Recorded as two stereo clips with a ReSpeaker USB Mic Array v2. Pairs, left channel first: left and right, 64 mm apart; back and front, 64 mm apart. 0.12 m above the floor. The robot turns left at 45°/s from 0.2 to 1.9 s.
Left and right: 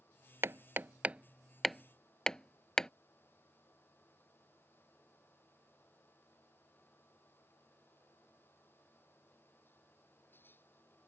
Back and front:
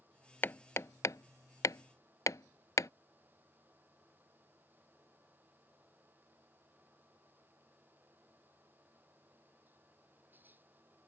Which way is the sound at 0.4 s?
130° right.